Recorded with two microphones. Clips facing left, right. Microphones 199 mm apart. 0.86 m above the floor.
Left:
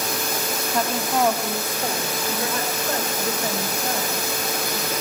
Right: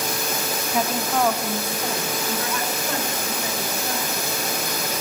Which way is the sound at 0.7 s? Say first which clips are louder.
Even; 10° right (ahead or behind).